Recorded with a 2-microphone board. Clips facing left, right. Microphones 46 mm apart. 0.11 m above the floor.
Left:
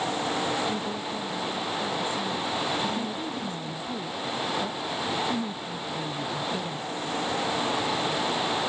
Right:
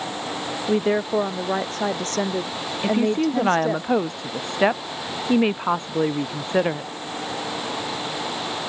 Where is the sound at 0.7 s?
65° right (ahead or behind); by 3.8 s 80° right.